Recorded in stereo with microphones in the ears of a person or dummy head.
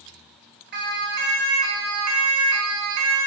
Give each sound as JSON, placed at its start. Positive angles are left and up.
{"t": 0.7, "sound": "a siren", "side_deg": -55, "distance_m": 4.5}